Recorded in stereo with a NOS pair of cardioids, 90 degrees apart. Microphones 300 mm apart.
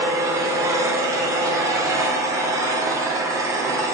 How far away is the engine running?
About 0.8 m.